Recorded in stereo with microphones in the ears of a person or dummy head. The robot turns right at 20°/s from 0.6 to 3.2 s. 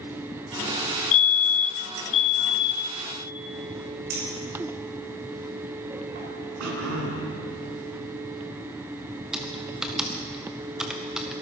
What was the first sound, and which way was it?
A fire alarm, 90° left.